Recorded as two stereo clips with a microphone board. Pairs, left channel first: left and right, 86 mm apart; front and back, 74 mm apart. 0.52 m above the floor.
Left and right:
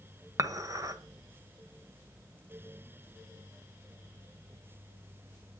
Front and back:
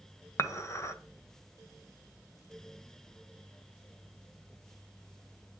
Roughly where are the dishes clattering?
Ahead right.